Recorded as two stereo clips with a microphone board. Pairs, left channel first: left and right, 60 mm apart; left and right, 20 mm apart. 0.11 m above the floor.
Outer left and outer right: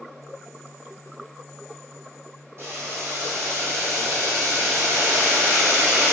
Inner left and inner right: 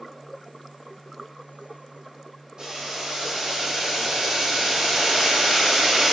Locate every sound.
2.6 s boiling: 45° right (ahead or behind), 0.9 m